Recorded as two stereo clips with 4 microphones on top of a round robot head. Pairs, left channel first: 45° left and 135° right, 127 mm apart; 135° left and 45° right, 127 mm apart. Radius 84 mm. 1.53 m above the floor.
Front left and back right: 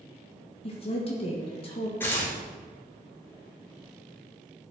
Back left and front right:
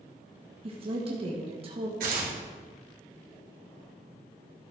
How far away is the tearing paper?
About 1.8 m.